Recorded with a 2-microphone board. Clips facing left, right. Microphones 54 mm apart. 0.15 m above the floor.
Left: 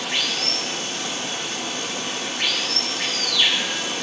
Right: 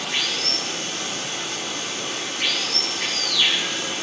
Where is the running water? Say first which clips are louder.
Left 1 dB; 75° left (ahead or behind), 2.5 m.